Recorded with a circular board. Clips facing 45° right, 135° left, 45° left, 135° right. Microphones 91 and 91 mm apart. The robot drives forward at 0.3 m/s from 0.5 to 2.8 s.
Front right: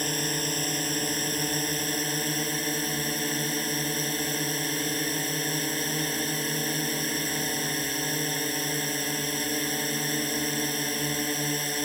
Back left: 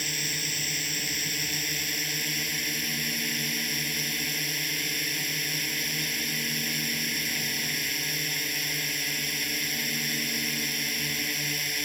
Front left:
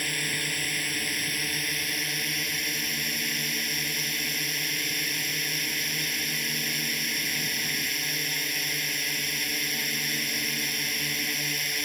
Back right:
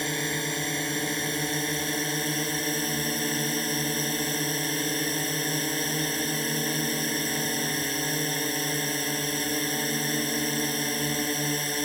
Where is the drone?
80° right; by 11.8 s 90° right.